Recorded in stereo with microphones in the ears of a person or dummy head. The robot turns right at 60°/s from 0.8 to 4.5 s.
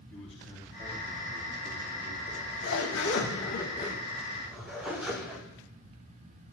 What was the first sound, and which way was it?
A man speaking, 175° left.